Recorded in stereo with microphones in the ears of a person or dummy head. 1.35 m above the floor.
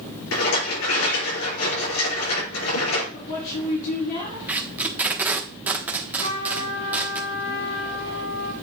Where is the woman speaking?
55° left (ahead or behind), 4.5 m.